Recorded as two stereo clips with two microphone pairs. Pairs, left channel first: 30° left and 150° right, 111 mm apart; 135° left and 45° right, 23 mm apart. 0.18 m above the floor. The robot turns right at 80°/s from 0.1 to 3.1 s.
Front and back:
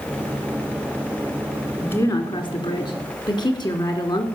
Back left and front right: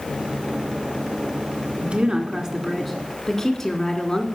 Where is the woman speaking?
45° right, 2 m; by 4.3 s 60° left, 2 m.